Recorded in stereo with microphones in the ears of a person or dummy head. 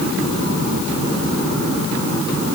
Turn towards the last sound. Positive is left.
No sound to turn to.